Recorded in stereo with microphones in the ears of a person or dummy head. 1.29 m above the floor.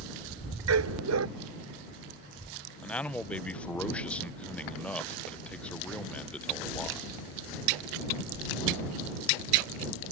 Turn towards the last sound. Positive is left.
turn(degrees=5)  # may be behind; listen again after turning